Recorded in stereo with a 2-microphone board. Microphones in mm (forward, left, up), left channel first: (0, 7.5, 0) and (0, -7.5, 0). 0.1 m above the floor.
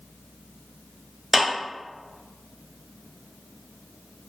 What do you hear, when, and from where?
1.3 s a clap: 15° right (ahead or behind), 1.5 m